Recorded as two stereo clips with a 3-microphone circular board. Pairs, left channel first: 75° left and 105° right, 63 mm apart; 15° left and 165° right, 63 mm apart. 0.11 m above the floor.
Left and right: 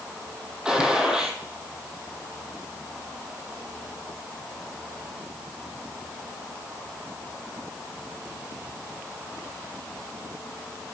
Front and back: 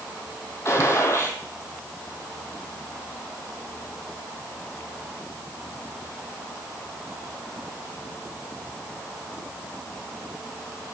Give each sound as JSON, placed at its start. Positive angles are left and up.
{"t": 0.7, "sound": "a gunshot", "azimuth_deg": -25, "distance_m": 1.3}